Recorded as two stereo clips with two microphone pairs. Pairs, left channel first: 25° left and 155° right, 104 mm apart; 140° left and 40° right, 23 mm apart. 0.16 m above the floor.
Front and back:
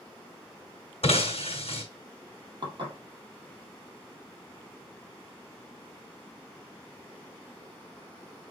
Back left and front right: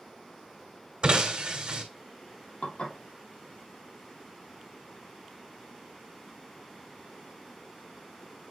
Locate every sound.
1.0 s breaking glass: 5° left, 2 m
2.6 s dishes clattering: 165° left, 3 m